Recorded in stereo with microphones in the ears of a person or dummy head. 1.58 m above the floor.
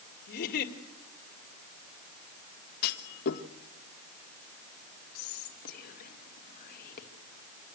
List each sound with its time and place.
0.3 s a giggle: 50° left (ahead or behind), 2 m
2.8 s a clunk: 55° left (ahead or behind), 1.5 m
5.2 s whispering: 50° left (ahead or behind), 1.9 m